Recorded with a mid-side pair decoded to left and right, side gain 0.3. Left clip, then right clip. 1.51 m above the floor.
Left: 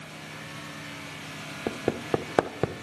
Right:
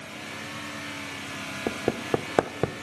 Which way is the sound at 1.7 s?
15° right.